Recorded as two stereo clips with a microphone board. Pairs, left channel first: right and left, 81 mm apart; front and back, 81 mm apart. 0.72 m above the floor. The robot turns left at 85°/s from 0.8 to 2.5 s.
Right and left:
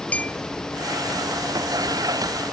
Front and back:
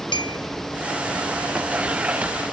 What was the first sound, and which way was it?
A clink, 15° right.